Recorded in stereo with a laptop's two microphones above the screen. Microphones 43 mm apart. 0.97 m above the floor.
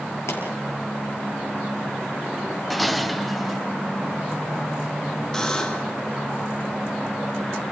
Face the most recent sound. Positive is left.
turn(degrees=15)  # may be behind; listen again after turning